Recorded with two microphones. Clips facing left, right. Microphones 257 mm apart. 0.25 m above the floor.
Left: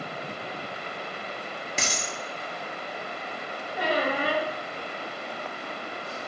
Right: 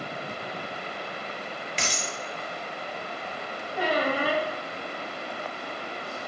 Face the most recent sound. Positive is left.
turn(degrees=15)  # may be behind; listen again after turning